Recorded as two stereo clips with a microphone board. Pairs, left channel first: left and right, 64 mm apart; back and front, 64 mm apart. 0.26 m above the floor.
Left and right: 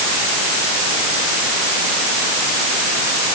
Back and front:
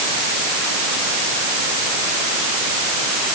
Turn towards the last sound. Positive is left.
No sound to turn to.